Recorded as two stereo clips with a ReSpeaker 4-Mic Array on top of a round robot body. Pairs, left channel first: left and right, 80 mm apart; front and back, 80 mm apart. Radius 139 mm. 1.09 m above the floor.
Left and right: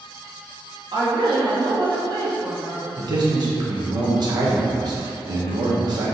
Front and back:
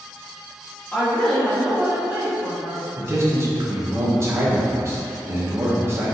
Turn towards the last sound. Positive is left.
turn(degrees=-125)